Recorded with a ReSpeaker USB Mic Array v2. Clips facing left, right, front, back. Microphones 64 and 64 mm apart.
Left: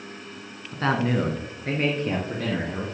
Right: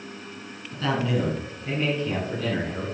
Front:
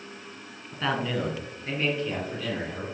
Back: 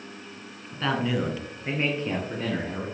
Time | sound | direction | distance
0.7 | a man speaking | 75° left | 1.3 m